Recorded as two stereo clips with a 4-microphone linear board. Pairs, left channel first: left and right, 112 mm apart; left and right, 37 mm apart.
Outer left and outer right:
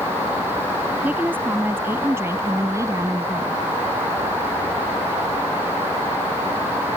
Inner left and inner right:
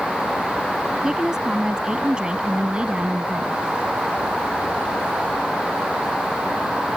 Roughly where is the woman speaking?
Centre.